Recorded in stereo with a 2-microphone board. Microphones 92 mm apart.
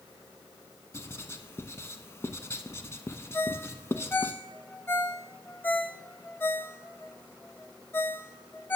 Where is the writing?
30° left (ahead or behind), 0.6 m.